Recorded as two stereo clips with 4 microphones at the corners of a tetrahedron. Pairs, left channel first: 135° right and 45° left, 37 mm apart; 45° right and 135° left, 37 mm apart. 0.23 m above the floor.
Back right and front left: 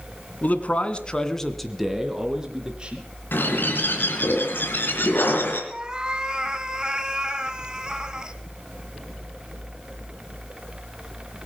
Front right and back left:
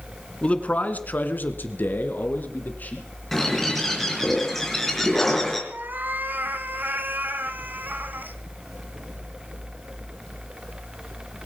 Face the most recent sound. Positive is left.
turn(degrees=115)